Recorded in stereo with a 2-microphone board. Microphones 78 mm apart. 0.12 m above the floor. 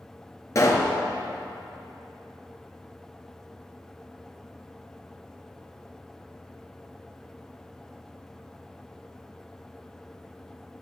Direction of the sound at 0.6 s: 40° left (ahead or behind).